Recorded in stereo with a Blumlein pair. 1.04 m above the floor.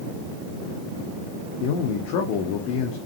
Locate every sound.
1.6 s a man speaking: 45° left, 1.7 m